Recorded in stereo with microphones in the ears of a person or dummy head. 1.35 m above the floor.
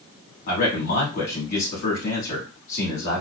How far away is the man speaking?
About 2.5 m.